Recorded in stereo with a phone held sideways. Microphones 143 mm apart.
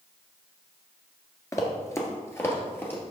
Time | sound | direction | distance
1.5 | running footsteps | 20° left (ahead or behind) | 1.1 m